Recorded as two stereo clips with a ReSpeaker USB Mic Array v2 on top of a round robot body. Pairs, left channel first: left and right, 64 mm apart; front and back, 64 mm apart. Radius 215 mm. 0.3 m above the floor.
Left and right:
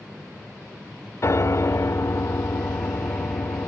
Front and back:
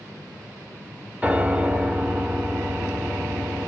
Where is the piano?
115° left, 1.1 m.